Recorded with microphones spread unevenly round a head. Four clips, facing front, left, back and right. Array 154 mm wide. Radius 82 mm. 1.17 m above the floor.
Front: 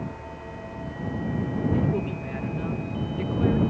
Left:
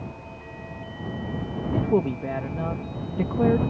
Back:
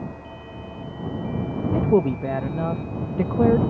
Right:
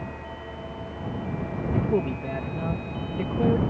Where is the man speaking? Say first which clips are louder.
Left 3 dB, back 7 dB; 170° left.